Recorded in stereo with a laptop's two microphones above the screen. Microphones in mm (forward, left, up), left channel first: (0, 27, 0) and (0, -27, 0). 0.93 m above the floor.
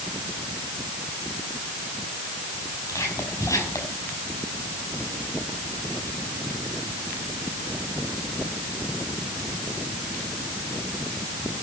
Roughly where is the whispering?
Left.